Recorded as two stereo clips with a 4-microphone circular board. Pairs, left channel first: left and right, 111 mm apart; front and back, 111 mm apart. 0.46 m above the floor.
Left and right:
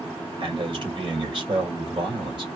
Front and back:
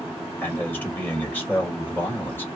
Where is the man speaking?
65° right, 2.5 m.